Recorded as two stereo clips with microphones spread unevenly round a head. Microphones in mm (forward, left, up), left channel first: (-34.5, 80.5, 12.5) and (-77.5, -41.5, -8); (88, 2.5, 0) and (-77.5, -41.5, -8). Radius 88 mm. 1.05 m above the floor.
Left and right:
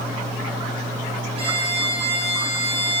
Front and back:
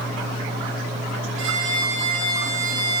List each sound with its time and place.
1.4 s a violin: 150° right, 9.5 m